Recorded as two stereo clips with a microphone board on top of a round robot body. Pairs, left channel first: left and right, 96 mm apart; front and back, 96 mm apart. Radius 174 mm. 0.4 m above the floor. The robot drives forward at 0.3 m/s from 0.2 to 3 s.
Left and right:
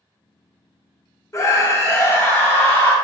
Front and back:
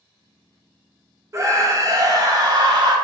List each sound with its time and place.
1.3 s a scream: 135° left, 1.0 m; by 3.0 s 155° left, 1.3 m